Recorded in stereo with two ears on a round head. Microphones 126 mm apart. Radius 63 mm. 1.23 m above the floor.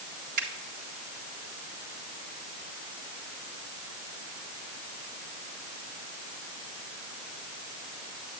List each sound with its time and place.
0.4 s a finger snap: 65° right (ahead or behind), 3.5 m